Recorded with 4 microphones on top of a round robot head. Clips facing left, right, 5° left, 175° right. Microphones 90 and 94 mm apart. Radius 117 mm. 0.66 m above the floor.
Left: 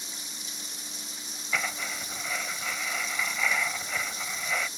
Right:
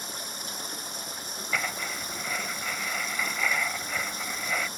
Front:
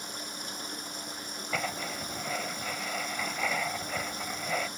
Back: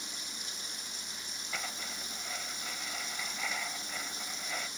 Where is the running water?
50° right.